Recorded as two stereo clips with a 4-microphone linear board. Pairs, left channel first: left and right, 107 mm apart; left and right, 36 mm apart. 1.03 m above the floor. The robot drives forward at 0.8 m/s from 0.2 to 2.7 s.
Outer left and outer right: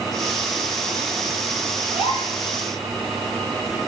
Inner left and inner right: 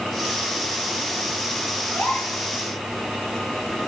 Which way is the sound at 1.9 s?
80° left.